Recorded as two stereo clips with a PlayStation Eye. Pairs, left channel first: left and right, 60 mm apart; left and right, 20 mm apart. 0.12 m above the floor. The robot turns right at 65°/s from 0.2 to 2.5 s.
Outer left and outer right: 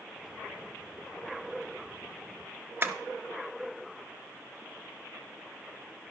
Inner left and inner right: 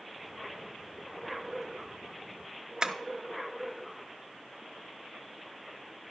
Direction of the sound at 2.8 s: 40° right (ahead or behind).